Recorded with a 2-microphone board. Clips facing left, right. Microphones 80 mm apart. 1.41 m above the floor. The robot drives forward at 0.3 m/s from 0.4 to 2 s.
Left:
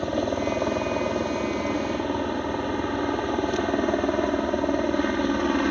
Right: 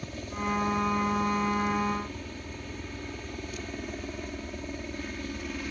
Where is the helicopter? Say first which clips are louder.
Left 10 dB; 65° left (ahead or behind).